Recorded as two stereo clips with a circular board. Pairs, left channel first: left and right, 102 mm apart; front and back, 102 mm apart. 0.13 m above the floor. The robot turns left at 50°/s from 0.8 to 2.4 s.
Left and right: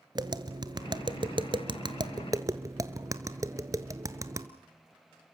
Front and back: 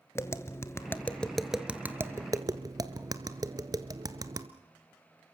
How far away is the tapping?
About 1.1 m.